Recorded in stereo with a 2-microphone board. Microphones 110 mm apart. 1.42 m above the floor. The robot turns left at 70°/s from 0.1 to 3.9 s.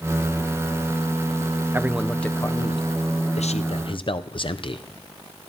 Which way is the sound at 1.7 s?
155° right.